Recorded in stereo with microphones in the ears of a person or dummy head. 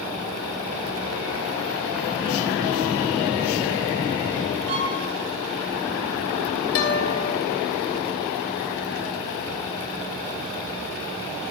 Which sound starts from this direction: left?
A guitar, at 6.8 s.